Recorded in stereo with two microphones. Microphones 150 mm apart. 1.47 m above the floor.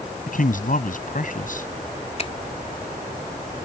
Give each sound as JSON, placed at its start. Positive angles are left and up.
{"t": 0.3, "sound": "a man speaking", "side_deg": 65}
{"t": 2.2, "sound": "a finger snap", "side_deg": 45}